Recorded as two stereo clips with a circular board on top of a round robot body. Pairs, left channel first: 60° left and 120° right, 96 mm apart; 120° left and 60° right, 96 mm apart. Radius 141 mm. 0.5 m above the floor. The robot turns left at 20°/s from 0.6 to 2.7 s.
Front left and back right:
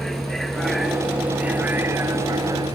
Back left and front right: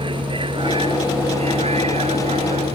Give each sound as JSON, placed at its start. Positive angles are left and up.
{"t": 0.0, "sound": "a vehicle", "azimuth_deg": -25}